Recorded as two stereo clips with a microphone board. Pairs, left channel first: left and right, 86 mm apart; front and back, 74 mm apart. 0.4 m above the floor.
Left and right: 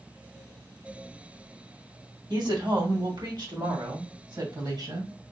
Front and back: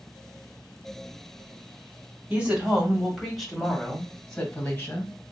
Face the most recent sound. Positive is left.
turn(degrees=-65)